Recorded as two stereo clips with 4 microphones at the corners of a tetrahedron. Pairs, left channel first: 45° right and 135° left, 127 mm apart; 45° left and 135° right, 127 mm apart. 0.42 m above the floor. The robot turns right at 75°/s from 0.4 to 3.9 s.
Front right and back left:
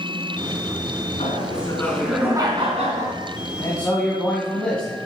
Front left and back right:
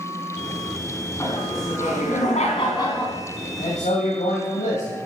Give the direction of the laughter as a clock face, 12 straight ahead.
1 o'clock.